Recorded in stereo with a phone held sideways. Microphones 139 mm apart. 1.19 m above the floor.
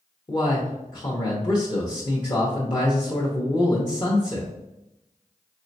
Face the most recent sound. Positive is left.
turn(degrees=35)  # may be behind; listen again after turning